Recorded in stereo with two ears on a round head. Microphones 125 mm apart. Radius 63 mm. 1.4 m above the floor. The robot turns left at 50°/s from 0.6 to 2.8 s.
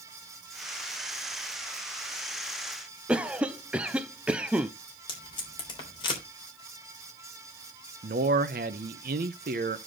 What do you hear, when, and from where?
3.1 s a cough: 10° right (ahead or behind), 0.6 m
5.1 s tape being pulled: 35° left (ahead or behind), 3 m
8.0 s a man speaking: 70° right (ahead or behind), 0.7 m